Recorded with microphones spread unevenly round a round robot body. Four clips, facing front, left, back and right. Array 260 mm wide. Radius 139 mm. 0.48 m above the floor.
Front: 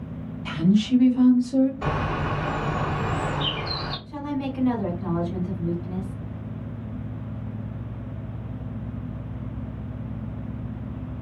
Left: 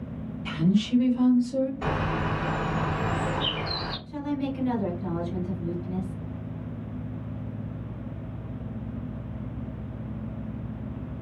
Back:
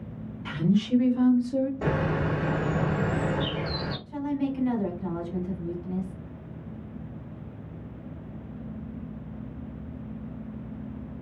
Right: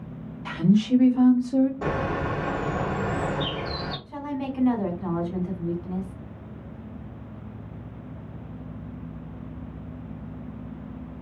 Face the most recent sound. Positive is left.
turn(degrees=-60)